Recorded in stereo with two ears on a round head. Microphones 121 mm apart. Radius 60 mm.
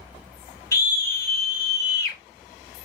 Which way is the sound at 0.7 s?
25° left (ahead or behind).